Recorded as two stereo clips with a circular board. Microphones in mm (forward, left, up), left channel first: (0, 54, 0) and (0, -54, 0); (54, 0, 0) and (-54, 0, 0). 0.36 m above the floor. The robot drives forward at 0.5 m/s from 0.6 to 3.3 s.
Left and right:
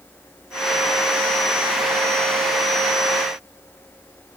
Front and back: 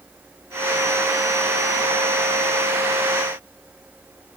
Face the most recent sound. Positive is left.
No sound to turn to.